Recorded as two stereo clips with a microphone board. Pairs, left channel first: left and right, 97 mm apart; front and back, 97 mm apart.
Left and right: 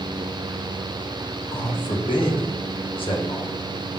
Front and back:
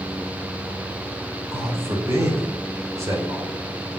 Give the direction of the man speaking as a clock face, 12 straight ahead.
8 o'clock.